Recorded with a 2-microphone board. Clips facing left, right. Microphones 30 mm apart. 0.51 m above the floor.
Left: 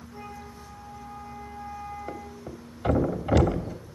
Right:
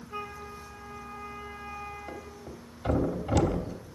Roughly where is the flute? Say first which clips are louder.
Right 4 dB; right.